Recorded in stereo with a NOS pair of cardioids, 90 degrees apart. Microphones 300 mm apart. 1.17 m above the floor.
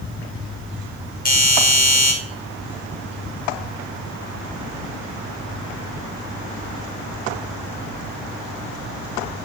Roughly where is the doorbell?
Ahead left.